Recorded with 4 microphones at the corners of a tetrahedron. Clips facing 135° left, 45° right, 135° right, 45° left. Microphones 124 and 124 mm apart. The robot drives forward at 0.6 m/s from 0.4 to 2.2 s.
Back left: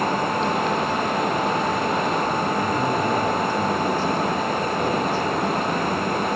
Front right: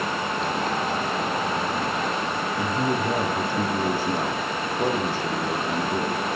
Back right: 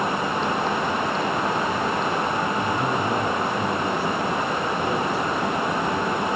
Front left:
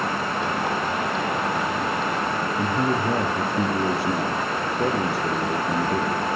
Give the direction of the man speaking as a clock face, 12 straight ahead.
11 o'clock.